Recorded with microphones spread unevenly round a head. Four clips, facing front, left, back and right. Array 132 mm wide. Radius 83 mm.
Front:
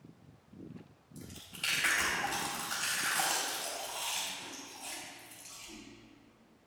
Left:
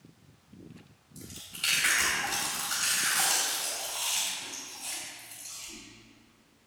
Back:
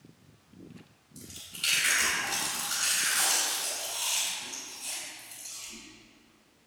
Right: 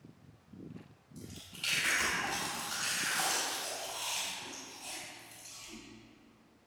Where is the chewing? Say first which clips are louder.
Left 3 dB, back 1 dB; 15° left, 3.5 m.